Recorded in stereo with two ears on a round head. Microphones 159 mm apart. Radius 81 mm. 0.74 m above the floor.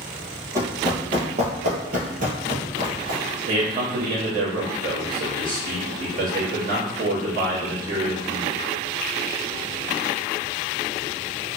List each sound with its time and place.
0.6 s running footsteps: 20° right (ahead or behind), 1.1 m; by 3.2 s 50° right (ahead or behind), 1.5 m
3.5 s a man speaking: 50° right (ahead or behind), 1.4 m